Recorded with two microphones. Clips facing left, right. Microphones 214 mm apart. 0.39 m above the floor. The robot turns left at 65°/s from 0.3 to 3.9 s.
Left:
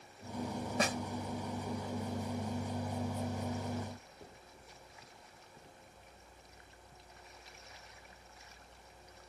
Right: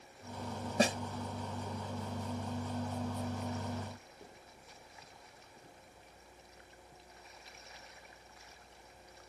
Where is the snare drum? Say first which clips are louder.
Right 5 dB; 35° right (ahead or behind); by 1.0 s 25° right (ahead or behind).